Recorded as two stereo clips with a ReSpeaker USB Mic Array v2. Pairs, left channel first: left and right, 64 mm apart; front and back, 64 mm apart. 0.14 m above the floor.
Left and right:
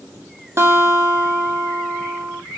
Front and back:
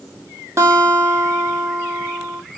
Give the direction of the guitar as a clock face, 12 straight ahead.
5 o'clock.